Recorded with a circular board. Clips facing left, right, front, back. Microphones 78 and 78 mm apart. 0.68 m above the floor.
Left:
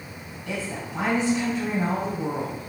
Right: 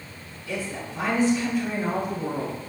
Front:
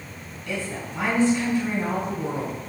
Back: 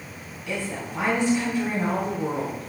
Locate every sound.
0.5 s a woman speaking: 105° left, 5 m